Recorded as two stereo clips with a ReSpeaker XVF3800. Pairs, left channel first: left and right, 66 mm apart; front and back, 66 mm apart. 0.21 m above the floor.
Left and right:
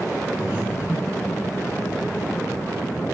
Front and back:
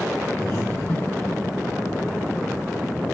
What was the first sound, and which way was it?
Breathing, 25° right.